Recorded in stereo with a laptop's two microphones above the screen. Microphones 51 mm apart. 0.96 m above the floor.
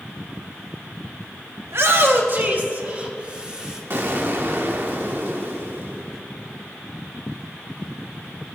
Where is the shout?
55° right (ahead or behind), 1.3 m; by 3.8 s 15° right (ahead or behind), 2 m.